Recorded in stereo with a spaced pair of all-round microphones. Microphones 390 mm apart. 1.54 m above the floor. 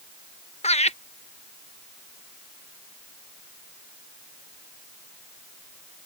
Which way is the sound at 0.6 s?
15° left (ahead or behind).